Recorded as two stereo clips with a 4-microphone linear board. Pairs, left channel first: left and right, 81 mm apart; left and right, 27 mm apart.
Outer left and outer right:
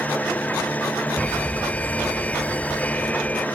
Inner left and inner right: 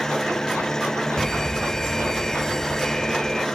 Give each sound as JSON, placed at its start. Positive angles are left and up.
{"t": 0.0, "sound": "an engine running", "side_deg": 20}
{"t": 1.2, "sound": "an alarm", "side_deg": 15}